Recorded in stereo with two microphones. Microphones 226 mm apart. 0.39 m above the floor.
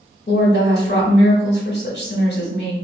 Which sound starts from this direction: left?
A woman speaking, at 0.3 s.